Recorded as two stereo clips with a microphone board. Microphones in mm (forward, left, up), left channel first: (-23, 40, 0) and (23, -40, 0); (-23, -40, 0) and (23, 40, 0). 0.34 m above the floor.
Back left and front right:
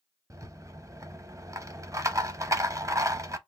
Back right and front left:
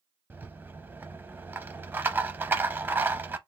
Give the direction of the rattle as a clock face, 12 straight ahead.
12 o'clock.